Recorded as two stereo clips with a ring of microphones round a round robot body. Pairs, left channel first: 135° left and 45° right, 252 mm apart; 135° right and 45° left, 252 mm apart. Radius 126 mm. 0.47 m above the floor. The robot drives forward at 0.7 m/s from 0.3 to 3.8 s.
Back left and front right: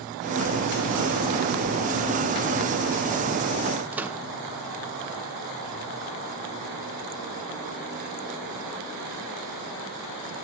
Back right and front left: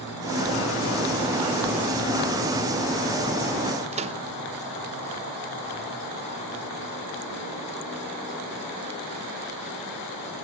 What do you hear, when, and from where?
3.9 s a microwave: 30° left, 0.6 m